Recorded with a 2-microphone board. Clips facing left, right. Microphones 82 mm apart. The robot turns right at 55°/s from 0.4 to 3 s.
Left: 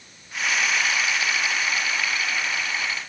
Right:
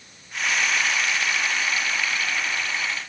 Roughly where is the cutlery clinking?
No cutlery clinking in this recording.